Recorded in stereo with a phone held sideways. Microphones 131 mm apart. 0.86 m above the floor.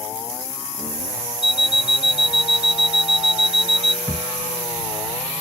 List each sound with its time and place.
1.4 s an alarm clock: 55° right (ahead or behind)
4.1 s a thud: 5° right (ahead or behind)